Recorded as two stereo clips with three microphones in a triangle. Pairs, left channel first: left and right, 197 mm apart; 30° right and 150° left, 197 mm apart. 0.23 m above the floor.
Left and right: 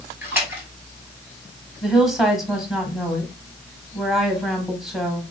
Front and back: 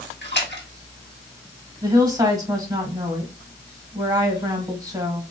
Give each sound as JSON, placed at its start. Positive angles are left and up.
{"t": 0.2, "sound": "a splash", "azimuth_deg": -10, "distance_m": 2.0}
{"t": 1.8, "sound": "a woman speaking", "azimuth_deg": -175, "distance_m": 1.2}